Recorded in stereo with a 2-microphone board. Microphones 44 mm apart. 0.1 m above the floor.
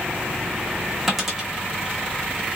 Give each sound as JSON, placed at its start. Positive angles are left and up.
{"t": 1.1, "sound": "a dropped coin", "side_deg": -5, "distance_m": 1.4}